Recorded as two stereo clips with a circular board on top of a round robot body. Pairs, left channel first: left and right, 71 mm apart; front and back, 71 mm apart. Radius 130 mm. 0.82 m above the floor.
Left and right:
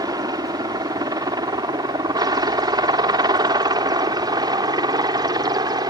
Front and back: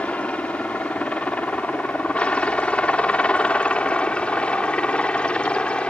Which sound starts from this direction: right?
A helicopter, at 0.0 s.